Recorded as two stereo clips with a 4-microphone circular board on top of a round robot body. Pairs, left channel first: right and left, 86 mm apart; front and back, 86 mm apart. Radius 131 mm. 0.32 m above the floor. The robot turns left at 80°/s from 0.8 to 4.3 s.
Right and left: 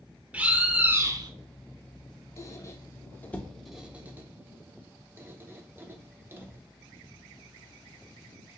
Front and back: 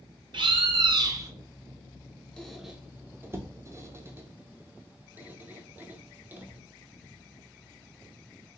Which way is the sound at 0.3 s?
160° left.